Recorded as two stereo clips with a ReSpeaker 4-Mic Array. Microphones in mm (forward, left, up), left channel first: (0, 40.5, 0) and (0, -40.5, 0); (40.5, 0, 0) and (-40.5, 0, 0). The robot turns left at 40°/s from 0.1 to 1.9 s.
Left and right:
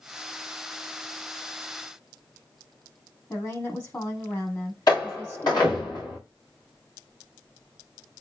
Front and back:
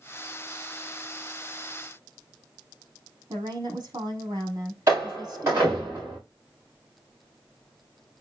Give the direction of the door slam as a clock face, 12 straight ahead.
8 o'clock.